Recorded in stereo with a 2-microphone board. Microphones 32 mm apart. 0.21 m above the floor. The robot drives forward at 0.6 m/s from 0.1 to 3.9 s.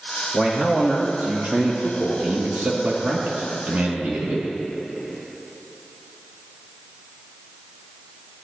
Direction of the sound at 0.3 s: 35° right (ahead or behind).